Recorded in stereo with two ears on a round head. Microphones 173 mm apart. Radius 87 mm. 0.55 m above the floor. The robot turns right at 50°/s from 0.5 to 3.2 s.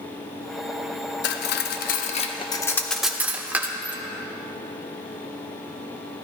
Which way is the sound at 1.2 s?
60° left (ahead or behind).